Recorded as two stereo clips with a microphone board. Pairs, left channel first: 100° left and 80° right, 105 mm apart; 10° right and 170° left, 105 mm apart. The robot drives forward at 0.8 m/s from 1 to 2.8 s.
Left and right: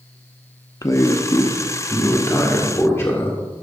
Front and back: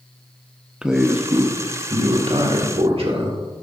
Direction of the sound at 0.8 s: 90° left.